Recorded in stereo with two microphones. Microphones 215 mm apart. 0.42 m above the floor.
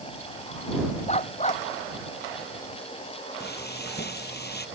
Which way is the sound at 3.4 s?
50° left (ahead or behind).